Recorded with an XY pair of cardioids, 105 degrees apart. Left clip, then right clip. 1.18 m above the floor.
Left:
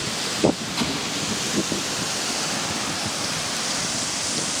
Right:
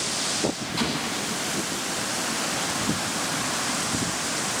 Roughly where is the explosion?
Ahead.